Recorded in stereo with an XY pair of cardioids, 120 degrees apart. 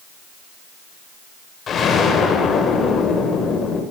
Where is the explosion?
40° left, 6 m.